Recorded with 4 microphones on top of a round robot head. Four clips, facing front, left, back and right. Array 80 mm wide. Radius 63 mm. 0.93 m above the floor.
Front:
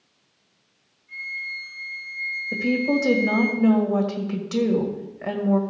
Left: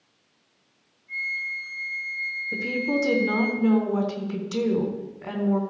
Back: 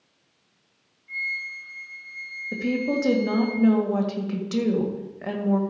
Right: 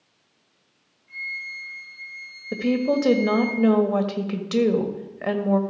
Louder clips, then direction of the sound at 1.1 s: Left 3 dB, back 2 dB; 150° right.